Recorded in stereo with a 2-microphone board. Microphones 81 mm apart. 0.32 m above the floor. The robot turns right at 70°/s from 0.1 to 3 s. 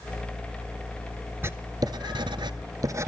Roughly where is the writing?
Right.